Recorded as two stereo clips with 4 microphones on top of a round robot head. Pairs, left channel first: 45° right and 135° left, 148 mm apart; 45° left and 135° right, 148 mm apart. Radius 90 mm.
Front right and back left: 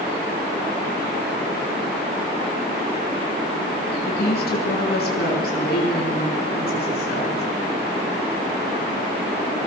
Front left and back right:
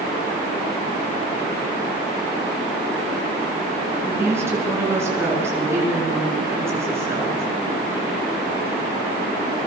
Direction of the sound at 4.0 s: 60° right.